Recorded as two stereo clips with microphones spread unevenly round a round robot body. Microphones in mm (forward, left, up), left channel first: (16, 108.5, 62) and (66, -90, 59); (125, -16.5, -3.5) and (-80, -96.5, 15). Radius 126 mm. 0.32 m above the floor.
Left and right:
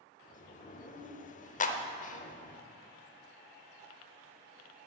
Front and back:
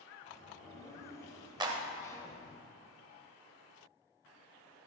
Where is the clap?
130° left, 0.8 m.